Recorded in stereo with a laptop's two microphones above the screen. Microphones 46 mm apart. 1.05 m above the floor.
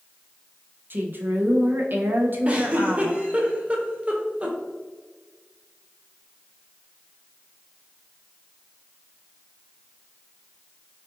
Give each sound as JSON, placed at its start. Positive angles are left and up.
{"t": 0.9, "sound": "a woman speaking", "side_deg": -45, "distance_m": 0.6}
{"t": 2.5, "sound": "a giggle", "side_deg": -25, "distance_m": 0.5}